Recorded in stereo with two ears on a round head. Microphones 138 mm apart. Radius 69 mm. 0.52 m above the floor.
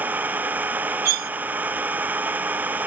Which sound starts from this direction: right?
Cutlery clinking, at 1.1 s.